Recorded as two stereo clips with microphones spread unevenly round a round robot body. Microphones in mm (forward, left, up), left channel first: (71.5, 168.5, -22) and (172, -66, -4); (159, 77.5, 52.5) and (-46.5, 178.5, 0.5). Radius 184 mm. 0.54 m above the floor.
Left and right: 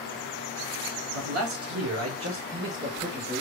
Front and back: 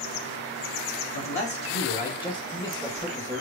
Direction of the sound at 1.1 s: 60° right.